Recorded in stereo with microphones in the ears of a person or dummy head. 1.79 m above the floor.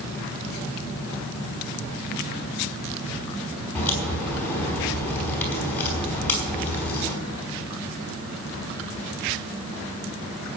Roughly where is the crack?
Centre.